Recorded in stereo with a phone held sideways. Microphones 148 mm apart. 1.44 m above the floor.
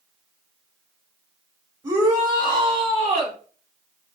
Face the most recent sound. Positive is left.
turn(degrees=-50)  # may be behind; listen again after turning